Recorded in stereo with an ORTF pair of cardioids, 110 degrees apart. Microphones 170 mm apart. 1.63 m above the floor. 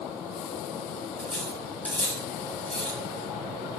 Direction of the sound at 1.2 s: 5° left.